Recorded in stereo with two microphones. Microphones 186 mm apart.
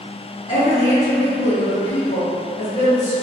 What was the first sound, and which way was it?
A woman speaking, 50° left (ahead or behind).